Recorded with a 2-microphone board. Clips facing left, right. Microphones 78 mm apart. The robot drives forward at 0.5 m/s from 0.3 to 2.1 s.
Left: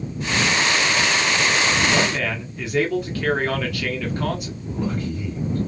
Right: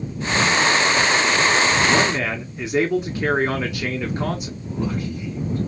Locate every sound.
1.9 s a man speaking: 20° right (ahead or behind), 0.9 m
4.7 s a man speaking: 10° right (ahead or behind), 1.8 m